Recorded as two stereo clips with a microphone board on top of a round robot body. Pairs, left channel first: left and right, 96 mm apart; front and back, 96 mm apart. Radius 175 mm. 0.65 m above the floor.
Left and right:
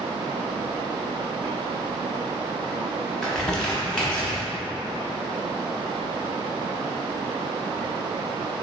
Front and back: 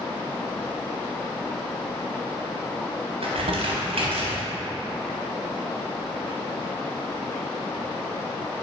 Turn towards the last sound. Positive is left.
turn(degrees=170)